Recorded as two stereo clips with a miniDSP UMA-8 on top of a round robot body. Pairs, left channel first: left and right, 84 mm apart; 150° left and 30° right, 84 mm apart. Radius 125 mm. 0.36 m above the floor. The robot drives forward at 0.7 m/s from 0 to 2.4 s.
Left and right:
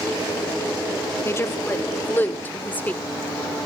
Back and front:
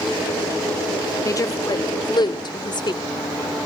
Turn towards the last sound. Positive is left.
turn(degrees=155)